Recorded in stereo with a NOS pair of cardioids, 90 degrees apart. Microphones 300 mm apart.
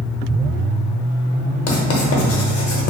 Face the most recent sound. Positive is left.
turn(degrees=55)